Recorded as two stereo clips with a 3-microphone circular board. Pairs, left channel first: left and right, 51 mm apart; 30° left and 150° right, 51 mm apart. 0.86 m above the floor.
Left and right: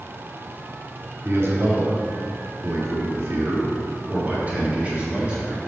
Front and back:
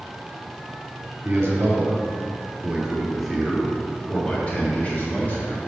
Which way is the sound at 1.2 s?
115° right.